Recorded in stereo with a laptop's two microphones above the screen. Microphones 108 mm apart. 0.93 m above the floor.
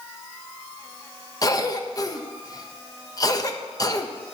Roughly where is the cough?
Left.